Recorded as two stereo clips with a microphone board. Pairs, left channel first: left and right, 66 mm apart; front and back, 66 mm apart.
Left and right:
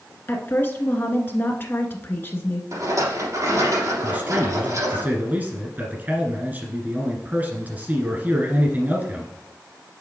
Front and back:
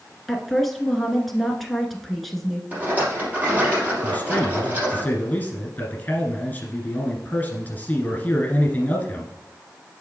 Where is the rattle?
115° right, 3.5 m.